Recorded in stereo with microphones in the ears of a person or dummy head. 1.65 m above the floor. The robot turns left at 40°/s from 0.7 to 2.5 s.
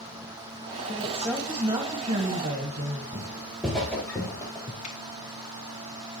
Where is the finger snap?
35° left (ahead or behind), 2.5 m.